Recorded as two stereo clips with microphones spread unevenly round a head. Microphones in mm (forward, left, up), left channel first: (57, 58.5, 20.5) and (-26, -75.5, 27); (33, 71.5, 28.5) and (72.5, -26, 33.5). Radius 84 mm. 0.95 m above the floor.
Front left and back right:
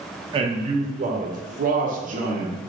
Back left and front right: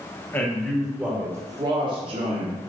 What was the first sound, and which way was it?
A man speaking, 175° right.